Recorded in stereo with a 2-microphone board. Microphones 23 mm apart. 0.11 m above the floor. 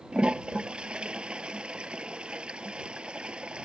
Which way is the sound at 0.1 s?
50° right (ahead or behind).